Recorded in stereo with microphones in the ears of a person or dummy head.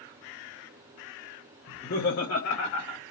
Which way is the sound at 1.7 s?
40° left (ahead or behind).